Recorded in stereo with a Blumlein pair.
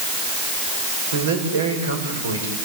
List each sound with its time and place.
1.1 s a man speaking: 70° right, 6.5 m